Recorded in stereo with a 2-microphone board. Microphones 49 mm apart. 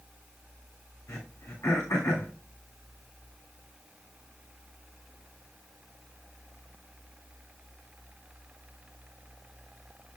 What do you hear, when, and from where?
1.1 s throat clearing: 80° left, 8 m